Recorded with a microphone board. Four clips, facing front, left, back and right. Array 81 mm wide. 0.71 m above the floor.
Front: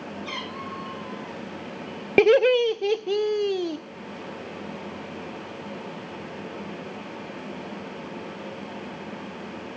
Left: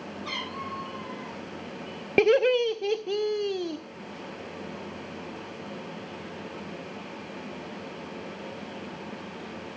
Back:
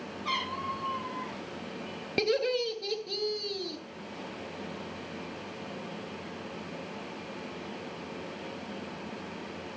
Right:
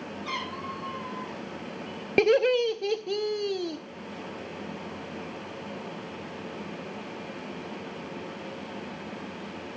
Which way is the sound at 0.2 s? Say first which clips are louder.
Right 1 dB, back 5 dB; 165° left.